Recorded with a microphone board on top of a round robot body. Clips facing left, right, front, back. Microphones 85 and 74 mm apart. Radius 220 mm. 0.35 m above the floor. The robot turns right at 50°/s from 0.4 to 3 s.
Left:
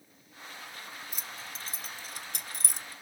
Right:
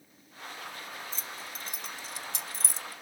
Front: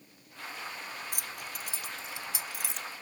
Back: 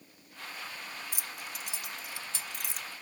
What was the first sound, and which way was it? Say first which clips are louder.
Keys jangling: right 2 dB, front 1 dB; 15° left.